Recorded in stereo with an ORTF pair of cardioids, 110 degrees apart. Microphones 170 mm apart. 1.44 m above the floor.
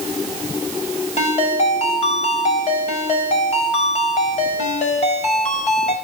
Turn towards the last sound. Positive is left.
turn(degrees=40)